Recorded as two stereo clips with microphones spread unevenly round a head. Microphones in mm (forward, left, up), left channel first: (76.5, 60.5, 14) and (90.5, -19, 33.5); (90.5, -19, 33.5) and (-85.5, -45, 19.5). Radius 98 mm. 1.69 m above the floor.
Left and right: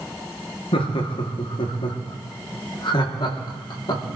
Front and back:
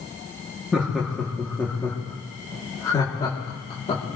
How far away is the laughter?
About 2.5 m.